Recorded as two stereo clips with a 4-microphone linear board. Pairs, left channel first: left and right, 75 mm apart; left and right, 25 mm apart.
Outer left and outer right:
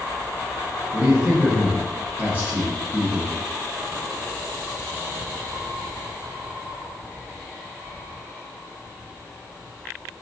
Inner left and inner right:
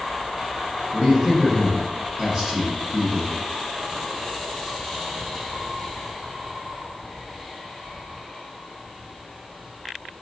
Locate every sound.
0.9 s a man speaking: 20° right (ahead or behind), 1.2 m